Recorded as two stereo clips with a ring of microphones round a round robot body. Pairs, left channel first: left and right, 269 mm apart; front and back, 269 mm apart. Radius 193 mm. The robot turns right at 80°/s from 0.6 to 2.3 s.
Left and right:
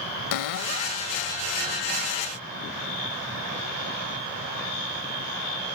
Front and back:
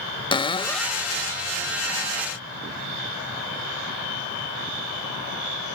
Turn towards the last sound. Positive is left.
turn(degrees=-150)